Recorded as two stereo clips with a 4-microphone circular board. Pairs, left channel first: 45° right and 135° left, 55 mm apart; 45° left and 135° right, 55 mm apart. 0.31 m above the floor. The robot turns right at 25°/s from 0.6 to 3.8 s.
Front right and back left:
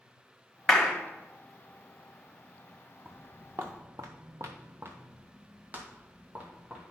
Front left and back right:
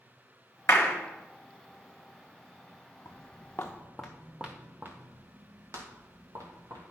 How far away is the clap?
About 1.6 m.